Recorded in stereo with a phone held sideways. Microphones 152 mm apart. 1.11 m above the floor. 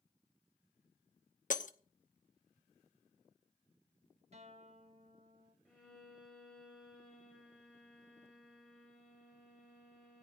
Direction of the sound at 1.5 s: 60° left (ahead or behind).